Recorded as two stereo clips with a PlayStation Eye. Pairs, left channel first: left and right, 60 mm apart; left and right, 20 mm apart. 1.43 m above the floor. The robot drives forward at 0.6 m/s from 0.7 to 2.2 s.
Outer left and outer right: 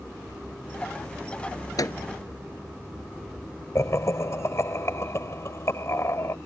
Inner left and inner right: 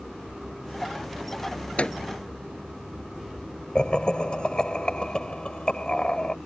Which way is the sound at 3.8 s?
50° left (ahead or behind).